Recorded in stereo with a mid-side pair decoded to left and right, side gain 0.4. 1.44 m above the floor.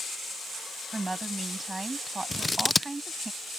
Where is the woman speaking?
20° right.